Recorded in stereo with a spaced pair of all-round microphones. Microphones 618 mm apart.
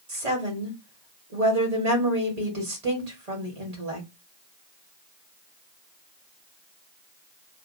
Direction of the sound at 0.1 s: 85° right.